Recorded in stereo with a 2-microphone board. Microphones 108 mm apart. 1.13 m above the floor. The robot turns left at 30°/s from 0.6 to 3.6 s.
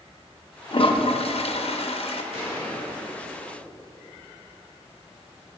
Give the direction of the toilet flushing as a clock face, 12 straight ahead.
8 o'clock.